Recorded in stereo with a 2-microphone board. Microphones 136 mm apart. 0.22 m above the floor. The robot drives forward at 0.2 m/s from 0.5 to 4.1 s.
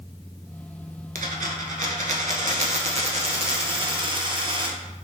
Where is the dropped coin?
80° right, 0.6 m; by 4.8 s 40° right (ahead or behind), 0.9 m.